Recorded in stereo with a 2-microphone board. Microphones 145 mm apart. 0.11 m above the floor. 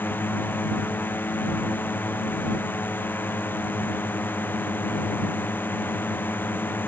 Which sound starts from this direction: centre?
A drone, at 0.0 s.